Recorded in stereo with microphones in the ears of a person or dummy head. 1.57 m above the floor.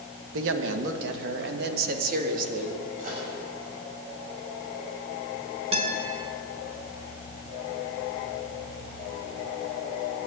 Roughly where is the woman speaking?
Right.